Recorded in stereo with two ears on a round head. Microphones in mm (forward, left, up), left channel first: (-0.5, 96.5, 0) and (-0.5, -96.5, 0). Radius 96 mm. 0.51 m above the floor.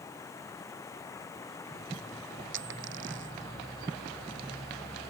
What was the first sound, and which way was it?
Running water, 15° left (ahead or behind).